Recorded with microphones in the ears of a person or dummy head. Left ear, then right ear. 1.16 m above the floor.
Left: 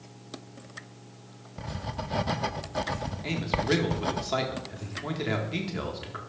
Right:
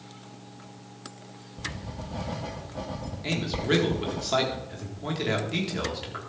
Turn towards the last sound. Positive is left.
turn(degrees=0)  # may be behind; listen again after turning